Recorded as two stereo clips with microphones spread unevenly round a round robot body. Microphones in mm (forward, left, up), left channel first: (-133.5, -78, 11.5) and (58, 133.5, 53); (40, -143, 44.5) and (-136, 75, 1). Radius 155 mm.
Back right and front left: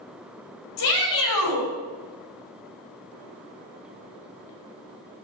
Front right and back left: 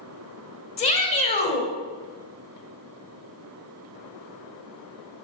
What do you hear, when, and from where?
0.8 s a shout: 110° right, 3 m